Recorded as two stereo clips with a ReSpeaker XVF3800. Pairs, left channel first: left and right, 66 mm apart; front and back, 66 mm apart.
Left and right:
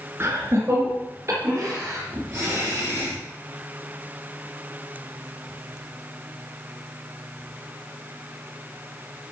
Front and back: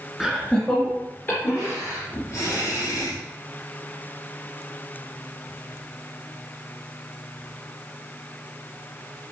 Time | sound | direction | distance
0.2 | laughter | 100° right | 2 m